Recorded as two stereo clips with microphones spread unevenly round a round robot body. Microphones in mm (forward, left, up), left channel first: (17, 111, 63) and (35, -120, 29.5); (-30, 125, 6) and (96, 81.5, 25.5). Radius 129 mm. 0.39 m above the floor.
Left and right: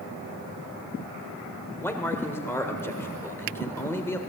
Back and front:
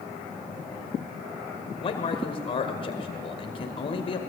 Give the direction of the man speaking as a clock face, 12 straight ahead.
6 o'clock.